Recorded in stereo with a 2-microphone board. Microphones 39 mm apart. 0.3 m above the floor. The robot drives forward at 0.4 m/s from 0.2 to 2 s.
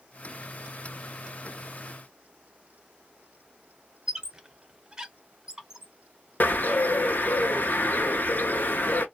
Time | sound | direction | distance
4.1 | a squeak | 15° right (ahead or behind) | 0.6 m
6.4 | a bird | 65° left (ahead or behind) | 0.5 m